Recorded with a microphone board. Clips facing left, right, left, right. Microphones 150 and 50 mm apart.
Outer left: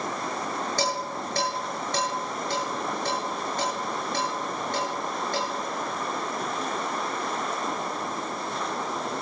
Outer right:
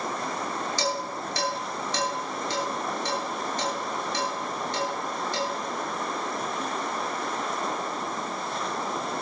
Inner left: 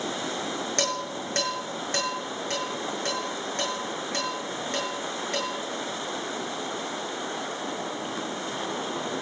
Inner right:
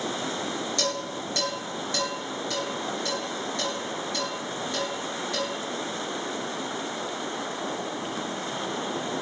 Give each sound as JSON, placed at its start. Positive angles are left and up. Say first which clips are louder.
{"t": 0.8, "sound": "dishes clattering", "louder": "outer left 1 dB, inner left 1 dB", "side_deg": 45, "distance_m": 8.5}